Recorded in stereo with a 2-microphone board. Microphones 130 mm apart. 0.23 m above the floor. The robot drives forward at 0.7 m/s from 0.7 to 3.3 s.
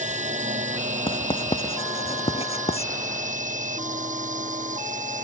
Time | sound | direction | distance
0.0 | a drone | 70° right (ahead or behind) | ?
1.1 | writing | 45° left (ahead or behind) | ?